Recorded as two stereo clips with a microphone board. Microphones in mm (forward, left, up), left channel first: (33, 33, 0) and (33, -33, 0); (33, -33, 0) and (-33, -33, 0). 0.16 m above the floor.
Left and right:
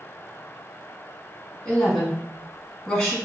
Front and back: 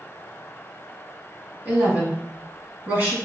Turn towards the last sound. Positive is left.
turn(degrees=155)